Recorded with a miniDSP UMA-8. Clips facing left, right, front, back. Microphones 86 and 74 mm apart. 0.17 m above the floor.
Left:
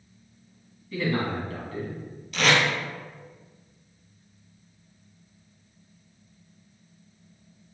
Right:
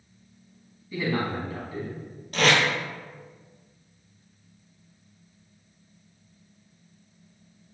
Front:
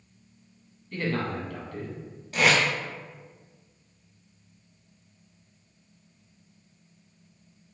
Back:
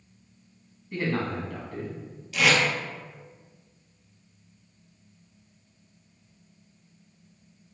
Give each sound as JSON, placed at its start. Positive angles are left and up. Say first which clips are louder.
{"t": 0.9, "sound": "a man speaking", "louder": "even, back 1 dB", "azimuth_deg": -140, "distance_m": 1.1}
{"t": 2.3, "sound": "tape being pulled", "louder": "right 1 dB, front 1 dB", "azimuth_deg": -50, "distance_m": 1.1}